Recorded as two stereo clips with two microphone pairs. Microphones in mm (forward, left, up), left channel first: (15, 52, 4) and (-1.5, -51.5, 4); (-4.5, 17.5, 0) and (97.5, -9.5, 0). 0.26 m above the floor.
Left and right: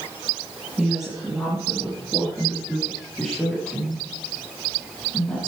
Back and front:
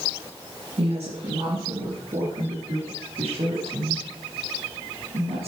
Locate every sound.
0.8 s a woman speaking: 15° right, 4.5 m; by 5.5 s 5° left, 8 m